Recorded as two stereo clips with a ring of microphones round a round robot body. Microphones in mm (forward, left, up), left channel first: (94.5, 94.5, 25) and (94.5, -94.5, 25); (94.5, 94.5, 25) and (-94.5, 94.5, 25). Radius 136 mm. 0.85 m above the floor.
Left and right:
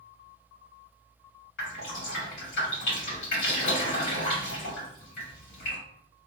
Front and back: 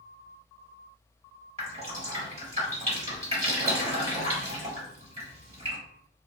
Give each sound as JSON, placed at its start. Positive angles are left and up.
{"t": 1.6, "sound": "dripping", "azimuth_deg": 125, "distance_m": 1.8}